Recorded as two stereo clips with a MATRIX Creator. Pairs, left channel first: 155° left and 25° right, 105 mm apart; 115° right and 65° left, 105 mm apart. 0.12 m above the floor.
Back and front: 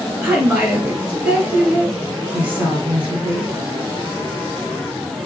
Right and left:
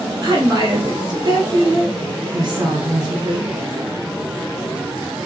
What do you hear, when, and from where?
0.2 s a woman speaking: 30° left, 1.3 m